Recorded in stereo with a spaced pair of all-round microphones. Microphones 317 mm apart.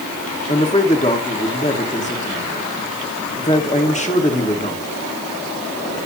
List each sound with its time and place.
0.5 s a man speaking: 20° left (ahead or behind), 1.9 m